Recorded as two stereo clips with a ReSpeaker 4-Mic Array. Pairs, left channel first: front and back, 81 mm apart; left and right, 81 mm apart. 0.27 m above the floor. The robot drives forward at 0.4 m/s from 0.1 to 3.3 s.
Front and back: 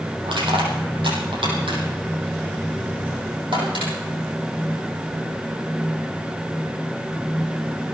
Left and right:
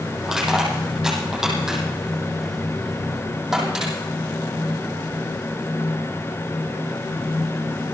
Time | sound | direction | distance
0.2 | crushing | 175° right | 6.5 m